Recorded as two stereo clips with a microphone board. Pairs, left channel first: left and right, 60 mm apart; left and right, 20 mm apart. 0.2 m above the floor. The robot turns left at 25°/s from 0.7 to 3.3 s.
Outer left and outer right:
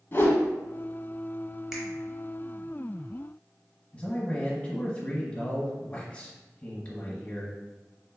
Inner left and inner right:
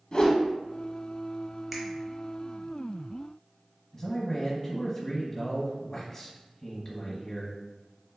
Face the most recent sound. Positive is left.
turn(degrees=25)  # may be behind; listen again after turning